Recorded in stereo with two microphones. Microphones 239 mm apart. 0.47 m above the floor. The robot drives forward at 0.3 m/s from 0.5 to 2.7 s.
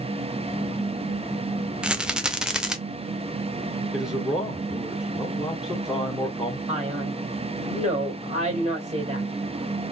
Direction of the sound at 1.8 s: 5° right (ahead or behind).